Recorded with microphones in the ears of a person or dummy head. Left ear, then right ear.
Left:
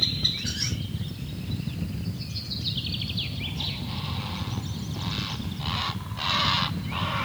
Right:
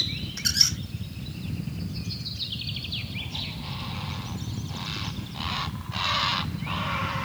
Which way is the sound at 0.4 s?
65° right (ahead or behind).